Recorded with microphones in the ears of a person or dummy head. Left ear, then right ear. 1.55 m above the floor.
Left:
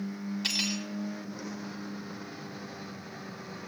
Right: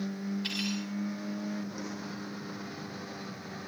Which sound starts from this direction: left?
Cutlery clinking, at 0.4 s.